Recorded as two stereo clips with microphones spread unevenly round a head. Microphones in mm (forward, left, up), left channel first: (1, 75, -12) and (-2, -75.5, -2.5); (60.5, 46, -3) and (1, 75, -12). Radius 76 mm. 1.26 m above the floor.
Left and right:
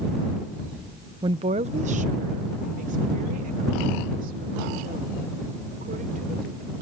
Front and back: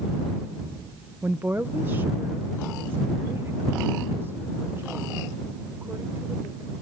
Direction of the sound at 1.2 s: 150° right.